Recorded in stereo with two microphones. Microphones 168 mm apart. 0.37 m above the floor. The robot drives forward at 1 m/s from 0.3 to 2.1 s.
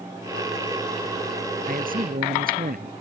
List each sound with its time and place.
1.7 s a man speaking: 55° right (ahead or behind); by 2.9 s 60° right (ahead or behind)